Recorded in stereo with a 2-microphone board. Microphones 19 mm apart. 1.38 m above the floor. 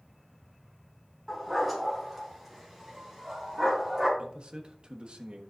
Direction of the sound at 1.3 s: 10° right (ahead or behind).